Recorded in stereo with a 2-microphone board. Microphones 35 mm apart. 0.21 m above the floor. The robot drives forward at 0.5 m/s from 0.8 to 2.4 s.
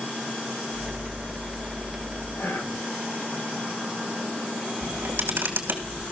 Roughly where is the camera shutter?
Right.